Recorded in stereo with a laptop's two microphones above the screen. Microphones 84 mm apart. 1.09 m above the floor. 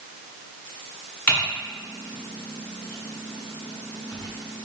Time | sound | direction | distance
1.3 | typing on a keyboard | 20° left (ahead or behind) | 1.0 m